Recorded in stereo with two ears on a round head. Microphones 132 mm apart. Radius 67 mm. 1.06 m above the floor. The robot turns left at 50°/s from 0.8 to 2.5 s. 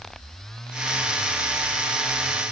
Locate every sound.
Only background noise.